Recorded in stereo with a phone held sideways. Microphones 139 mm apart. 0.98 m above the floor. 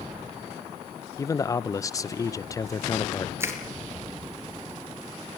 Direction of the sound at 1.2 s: 25° left (ahead or behind).